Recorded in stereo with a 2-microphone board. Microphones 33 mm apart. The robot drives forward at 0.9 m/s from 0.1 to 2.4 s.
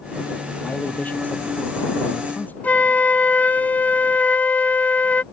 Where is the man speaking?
50° left (ahead or behind); by 2.5 s 55° left (ahead or behind).